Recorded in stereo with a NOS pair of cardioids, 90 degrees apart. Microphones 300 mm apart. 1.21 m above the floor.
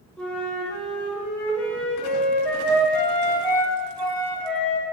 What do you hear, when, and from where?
0.2 s a flute: 5° left, 0.7 m